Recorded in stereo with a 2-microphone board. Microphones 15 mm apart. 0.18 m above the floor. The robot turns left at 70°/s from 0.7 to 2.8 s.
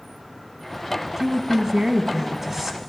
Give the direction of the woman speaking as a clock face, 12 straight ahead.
1 o'clock.